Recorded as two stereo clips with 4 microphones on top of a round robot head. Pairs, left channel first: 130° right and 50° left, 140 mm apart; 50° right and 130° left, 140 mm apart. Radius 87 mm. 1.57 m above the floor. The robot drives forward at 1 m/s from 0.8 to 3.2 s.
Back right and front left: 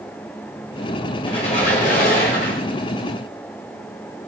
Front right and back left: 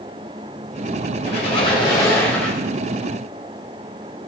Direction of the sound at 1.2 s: 80° right.